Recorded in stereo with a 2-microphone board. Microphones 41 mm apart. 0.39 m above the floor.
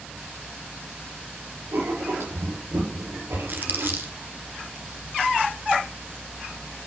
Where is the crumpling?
55° right (ahead or behind), 2.5 m.